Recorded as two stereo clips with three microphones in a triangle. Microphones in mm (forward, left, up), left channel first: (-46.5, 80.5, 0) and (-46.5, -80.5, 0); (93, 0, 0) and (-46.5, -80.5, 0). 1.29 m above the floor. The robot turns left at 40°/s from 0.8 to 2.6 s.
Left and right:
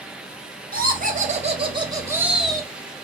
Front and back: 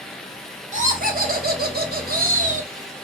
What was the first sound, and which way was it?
Laughter, 110° right.